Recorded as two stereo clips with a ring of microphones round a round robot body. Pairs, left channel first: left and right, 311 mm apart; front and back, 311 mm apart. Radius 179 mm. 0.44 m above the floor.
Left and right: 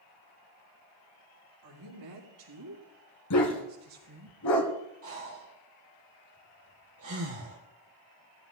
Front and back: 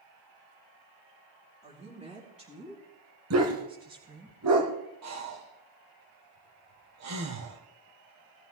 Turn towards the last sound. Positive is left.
turn(degrees=-145)